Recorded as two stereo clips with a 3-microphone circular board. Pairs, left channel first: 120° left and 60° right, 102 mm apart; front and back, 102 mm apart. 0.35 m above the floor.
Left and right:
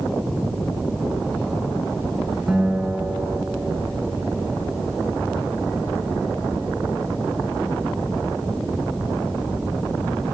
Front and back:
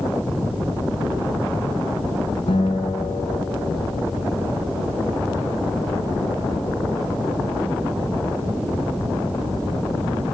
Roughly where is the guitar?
Ahead.